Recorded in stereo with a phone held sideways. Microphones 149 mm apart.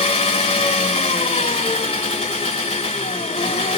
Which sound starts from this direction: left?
An engine running, at 0.0 s.